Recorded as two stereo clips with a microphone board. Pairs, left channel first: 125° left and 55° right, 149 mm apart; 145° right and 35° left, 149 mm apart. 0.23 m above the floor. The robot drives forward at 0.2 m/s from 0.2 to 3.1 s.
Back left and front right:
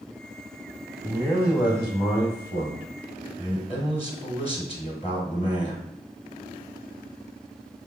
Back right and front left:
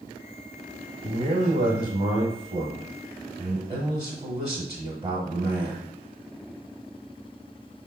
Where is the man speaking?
70° left, 1.4 m; by 5.8 s 100° left, 1.3 m.